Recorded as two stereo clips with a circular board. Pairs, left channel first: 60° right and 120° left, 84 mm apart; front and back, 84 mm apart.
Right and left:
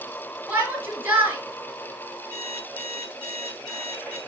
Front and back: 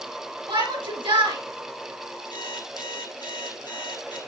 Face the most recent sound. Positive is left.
turn(degrees=-30)